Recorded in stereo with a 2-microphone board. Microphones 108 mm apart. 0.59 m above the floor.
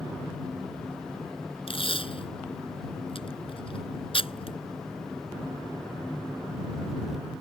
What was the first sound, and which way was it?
Tape being pulled, 60° left (ahead or behind).